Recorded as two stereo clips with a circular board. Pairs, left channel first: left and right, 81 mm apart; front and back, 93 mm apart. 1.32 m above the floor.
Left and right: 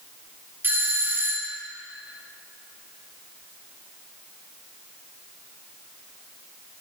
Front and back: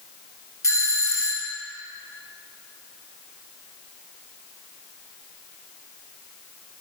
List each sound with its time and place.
0.6 s a doorbell: 40° right, 1.0 m